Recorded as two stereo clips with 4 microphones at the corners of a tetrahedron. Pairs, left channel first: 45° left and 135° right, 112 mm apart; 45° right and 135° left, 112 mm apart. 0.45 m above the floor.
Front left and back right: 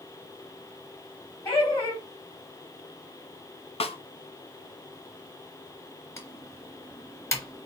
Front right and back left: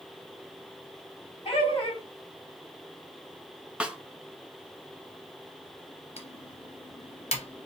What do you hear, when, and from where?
1.4 s laughter: 5° right, 3 m
3.8 s a snare drum: 55° left, 0.7 m
6.2 s typing on a keyboard: 20° right, 1.5 m